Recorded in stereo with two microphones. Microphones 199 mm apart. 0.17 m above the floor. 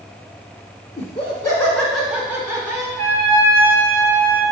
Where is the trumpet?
45° left (ahead or behind), 1.6 m.